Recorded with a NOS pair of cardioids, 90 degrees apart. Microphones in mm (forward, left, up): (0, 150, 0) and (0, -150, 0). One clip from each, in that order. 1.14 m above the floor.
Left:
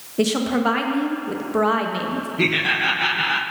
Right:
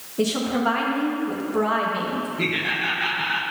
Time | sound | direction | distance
0.2 | a woman speaking | 25° left | 1.1 m
2.4 | laughter | 30° left | 0.8 m